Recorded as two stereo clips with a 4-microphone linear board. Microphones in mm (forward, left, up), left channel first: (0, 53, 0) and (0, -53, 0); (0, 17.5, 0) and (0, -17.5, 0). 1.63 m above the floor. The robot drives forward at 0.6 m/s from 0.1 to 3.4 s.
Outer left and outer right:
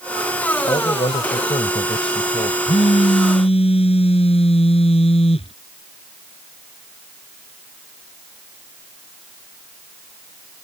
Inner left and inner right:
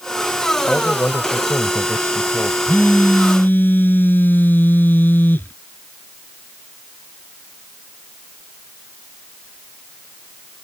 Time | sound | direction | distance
0.7 | a man speaking | 65° left (ahead or behind) | ?
2.7 | a phone buzzing | 60° left (ahead or behind) | ?